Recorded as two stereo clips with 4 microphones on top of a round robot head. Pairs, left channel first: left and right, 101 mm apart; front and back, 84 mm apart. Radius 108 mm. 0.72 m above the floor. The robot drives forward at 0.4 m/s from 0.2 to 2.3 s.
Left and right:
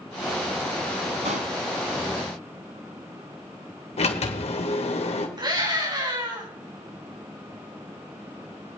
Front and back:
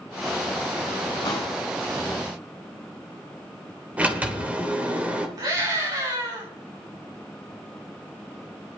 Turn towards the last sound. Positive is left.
turn(degrees=-135)